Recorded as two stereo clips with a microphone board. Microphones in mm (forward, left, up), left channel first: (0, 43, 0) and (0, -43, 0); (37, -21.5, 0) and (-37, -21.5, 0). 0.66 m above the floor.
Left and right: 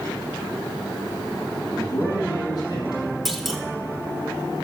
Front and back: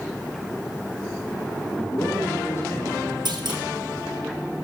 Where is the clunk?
175° right, 1.2 m.